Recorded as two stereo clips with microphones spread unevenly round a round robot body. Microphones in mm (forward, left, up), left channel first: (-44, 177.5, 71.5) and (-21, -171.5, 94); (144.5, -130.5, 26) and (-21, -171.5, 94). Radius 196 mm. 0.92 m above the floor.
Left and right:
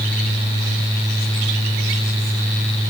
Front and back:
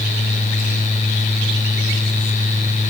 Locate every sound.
Only background noise.